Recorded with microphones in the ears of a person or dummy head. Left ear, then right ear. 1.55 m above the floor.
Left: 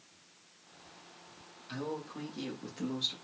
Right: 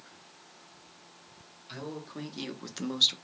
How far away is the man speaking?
About 1.1 m.